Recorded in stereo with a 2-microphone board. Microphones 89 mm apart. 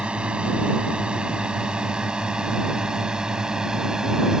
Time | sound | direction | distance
0.0 | a drone | 10° right (ahead or behind) | ?